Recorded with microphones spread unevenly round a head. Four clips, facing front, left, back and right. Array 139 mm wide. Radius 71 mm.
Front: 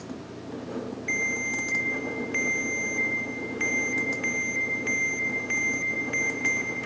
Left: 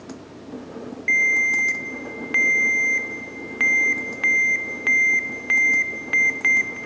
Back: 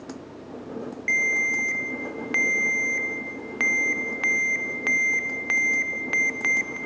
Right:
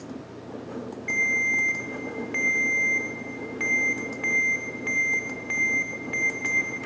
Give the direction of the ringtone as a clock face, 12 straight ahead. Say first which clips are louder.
Left 5 dB, back 7 dB; 7 o'clock.